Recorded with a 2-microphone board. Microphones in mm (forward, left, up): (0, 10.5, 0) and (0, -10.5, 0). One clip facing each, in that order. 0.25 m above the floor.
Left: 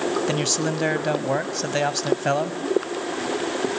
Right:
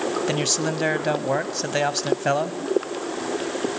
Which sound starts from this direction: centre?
A man speaking, at 0.3 s.